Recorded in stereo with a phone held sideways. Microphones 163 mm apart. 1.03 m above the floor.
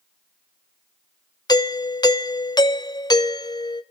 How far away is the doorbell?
About 0.7 m.